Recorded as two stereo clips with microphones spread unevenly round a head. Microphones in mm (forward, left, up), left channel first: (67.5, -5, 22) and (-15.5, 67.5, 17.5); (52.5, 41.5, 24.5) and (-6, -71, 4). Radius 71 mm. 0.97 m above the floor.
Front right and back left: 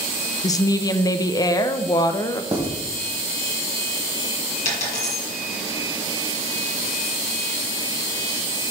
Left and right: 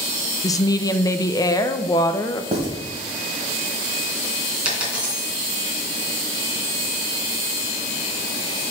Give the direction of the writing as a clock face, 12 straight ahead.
6 o'clock.